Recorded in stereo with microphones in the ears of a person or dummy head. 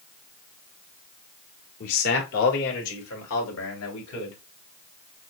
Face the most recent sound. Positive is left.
turn(degrees=70)  # may be behind; listen again after turning